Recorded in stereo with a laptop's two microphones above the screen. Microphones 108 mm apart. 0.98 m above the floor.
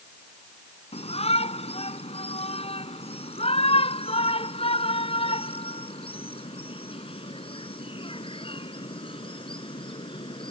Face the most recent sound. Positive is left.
turn(degrees=55)  # may be behind; listen again after turning